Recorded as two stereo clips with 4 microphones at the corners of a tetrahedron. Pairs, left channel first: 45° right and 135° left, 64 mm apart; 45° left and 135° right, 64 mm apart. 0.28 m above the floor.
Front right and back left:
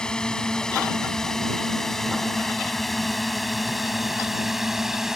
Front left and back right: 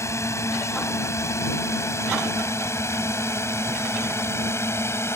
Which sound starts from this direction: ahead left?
A drone, at 0.0 s.